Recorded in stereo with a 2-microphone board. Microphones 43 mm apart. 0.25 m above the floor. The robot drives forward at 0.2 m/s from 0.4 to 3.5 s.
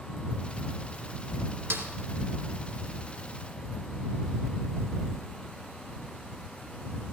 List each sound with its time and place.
1.7 s a snare drum: 70° right (ahead or behind), 3 m